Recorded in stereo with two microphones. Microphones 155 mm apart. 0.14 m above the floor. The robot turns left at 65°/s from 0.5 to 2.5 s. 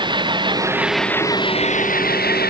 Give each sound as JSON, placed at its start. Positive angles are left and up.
{"t": 0.0, "sound": "an engine running", "azimuth_deg": -150}